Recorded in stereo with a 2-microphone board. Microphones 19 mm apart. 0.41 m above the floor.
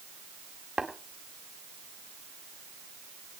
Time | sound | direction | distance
0.8 | tapping | 40° right (ahead or behind) | 1.7 m